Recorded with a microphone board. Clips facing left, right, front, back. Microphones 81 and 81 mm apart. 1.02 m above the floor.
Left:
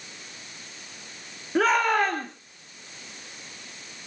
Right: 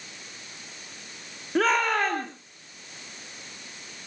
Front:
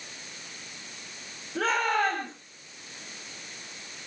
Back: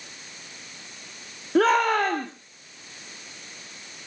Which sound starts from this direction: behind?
A shout, at 1.6 s.